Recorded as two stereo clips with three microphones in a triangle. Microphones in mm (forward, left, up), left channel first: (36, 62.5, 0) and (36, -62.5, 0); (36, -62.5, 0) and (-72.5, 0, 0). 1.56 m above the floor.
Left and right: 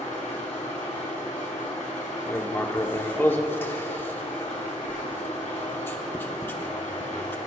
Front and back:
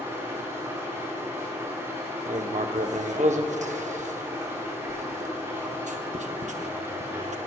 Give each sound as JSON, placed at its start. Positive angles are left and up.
{"t": 0.0, "sound": "an engine running", "azimuth_deg": 85, "distance_m": 3.5}
{"t": 2.3, "sound": "writing", "azimuth_deg": 160, "distance_m": 0.7}